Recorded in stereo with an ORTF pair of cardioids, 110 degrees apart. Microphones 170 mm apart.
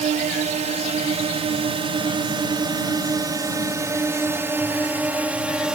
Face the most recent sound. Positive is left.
turn(degrees=-5)